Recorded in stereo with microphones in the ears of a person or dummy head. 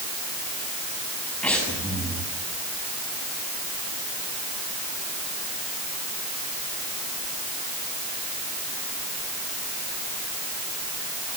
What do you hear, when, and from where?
1.4 s breathing: 5° left (ahead or behind), 7.5 m